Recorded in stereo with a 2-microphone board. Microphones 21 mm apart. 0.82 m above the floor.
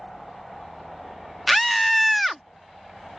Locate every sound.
1.5 s a scream: centre (ahead or behind)